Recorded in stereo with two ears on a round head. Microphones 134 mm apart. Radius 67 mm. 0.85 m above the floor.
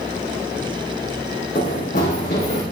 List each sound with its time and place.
1.6 s running footsteps: 60° left (ahead or behind), 3 m; by 2.6 s 50° left (ahead or behind), 3.5 m